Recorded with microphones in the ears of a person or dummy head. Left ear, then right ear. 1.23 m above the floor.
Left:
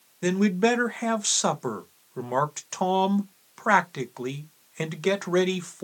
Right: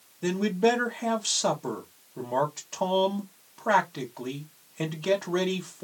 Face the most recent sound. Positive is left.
turn(degrees=65)  # may be behind; listen again after turning